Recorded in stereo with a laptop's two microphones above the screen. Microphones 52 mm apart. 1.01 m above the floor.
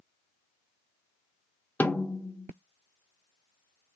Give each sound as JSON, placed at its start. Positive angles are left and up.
{"t": 1.8, "sound": "a snare drum", "side_deg": 35, "distance_m": 0.8}